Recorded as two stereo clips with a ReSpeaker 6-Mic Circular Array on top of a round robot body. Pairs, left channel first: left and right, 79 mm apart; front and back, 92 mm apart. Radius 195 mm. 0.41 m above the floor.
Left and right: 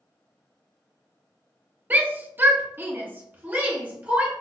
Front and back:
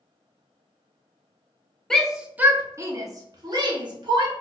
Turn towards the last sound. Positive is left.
turn(degrees=-160)